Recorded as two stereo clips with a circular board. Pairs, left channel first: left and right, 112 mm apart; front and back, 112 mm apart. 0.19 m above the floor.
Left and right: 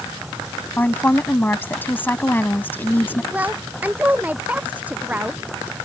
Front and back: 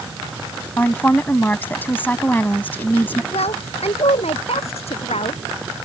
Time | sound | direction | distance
0.8 | a woman speaking | 45° left | ?
3.3 | a woman speaking | 15° right | ?